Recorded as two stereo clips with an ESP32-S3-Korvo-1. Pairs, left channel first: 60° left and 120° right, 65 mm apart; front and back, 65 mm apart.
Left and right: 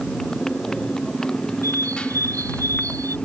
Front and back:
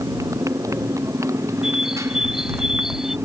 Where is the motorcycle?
145° left; by 3.3 s 135° left.